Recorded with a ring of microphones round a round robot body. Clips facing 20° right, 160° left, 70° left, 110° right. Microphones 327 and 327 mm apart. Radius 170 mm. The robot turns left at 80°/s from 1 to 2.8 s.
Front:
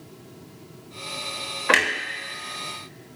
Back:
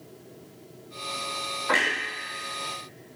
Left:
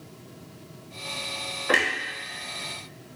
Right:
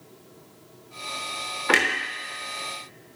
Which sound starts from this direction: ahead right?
A clunk, at 1.7 s.